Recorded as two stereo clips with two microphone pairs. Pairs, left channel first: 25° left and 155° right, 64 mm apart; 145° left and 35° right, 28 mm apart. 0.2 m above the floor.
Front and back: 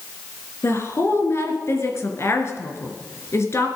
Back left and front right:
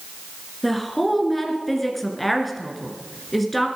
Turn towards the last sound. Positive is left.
turn(degrees=60)